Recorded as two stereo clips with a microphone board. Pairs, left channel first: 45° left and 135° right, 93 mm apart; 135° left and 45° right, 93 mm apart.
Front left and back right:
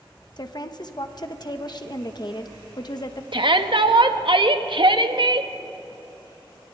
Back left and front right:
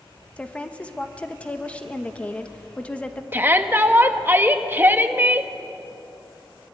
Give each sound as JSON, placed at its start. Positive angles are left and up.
{"t": 0.4, "sound": "a woman speaking", "azimuth_deg": 65, "distance_m": 1.2}
{"t": 3.3, "sound": "a shout", "azimuth_deg": -110, "distance_m": 1.1}